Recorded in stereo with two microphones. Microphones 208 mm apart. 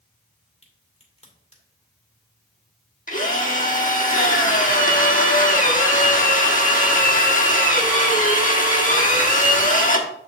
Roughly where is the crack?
Left.